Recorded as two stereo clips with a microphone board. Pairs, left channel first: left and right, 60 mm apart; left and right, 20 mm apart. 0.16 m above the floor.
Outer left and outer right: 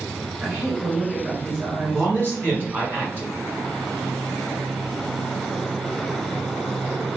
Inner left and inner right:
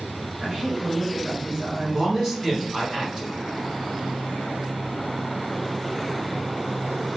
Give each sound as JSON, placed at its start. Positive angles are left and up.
{"t": 0.4, "sound": "a woman speaking", "side_deg": -35, "distance_m": 1.7}
{"t": 1.8, "sound": "a man speaking", "side_deg": -35, "distance_m": 1.9}